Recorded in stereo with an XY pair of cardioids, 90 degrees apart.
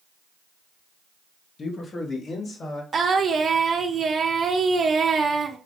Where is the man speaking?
45° left, 0.9 m; by 2.8 s 60° left, 1.8 m.